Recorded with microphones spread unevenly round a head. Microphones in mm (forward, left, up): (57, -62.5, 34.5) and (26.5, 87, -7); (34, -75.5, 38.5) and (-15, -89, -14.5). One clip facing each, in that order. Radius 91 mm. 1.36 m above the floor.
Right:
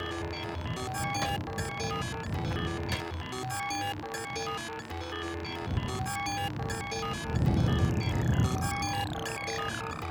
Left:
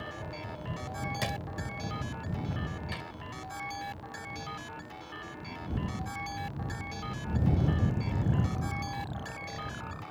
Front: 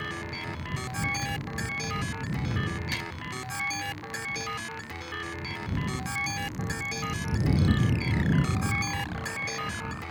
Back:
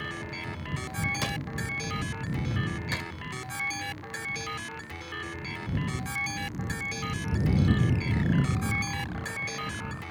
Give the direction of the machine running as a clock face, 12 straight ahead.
2 o'clock.